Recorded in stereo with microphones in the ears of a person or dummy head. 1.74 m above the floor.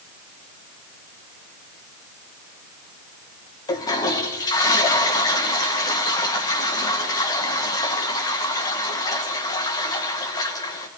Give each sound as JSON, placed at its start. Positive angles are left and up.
{"t": 3.7, "sound": "a toilet flushing", "side_deg": 20, "distance_m": 2.0}